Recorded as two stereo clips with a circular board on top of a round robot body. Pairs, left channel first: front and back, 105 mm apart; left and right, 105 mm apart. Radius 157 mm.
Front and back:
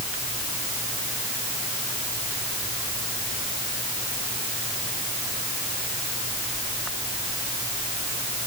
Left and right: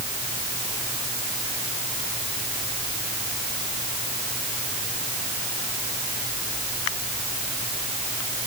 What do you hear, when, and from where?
Only background noise.